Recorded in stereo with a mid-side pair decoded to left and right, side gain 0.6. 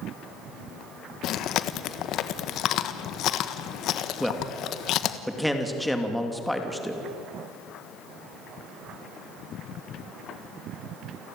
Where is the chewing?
60° left, 1.4 m.